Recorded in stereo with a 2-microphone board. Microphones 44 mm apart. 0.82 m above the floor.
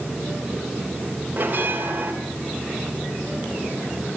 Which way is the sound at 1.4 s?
45° right (ahead or behind).